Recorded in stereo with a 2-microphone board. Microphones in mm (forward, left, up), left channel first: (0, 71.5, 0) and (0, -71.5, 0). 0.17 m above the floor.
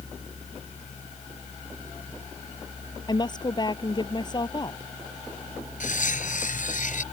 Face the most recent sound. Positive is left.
turn(degrees=65)  # may be behind; listen again after turning